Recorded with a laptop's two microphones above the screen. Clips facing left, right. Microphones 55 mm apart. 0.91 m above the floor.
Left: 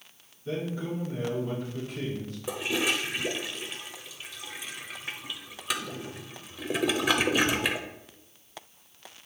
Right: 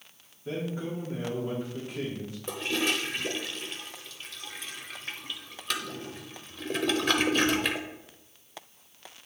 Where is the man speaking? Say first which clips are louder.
Left 1 dB; 20° right (ahead or behind), 2 m.